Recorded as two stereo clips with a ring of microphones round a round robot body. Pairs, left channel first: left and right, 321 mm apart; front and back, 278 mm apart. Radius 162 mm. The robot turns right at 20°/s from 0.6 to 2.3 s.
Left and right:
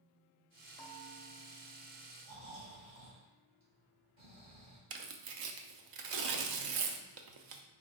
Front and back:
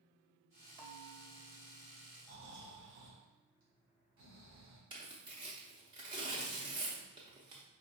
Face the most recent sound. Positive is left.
turn(degrees=-105)